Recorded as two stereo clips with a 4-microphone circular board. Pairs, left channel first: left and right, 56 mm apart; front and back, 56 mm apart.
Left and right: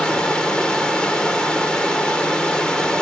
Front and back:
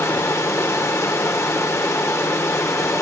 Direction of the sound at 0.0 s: 20° left.